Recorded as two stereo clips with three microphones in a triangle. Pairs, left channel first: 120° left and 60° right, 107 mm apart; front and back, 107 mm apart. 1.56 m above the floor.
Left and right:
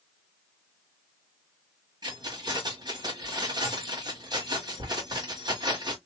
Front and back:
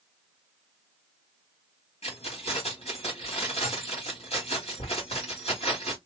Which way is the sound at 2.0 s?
10° right.